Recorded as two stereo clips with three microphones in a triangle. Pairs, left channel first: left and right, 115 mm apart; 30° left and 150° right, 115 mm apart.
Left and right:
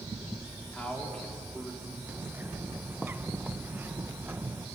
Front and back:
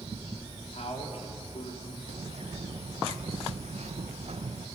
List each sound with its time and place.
0.7 s a man speaking: 10° left, 4 m
2.1 s a bird: 165° right, 0.8 m